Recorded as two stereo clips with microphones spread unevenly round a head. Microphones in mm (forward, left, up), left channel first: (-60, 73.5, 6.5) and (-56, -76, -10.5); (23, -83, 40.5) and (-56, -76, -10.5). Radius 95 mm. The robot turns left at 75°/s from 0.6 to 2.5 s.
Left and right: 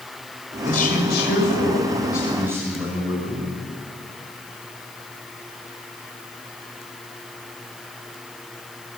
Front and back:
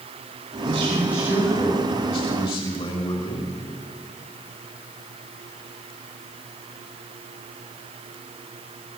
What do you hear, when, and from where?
0.7 s a man speaking: 130° left, 6.5 m; by 3.5 s 10° right, 6.5 m